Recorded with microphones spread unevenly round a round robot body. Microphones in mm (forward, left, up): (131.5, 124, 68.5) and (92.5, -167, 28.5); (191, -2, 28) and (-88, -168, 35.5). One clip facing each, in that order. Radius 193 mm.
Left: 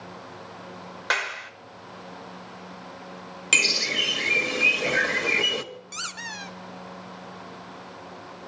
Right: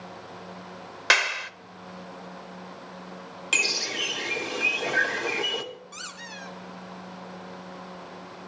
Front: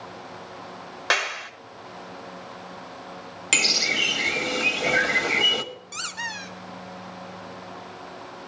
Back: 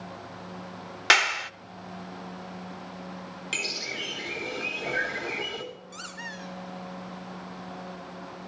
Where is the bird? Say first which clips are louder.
Left 3 dB, front 9 dB; 25° left, 1.4 m.